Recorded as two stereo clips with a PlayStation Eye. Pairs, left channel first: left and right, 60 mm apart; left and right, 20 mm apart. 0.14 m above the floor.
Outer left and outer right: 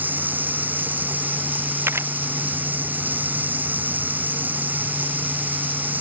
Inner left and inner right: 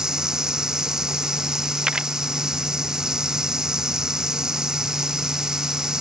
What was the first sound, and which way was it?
Running water, 30° right (ahead or behind).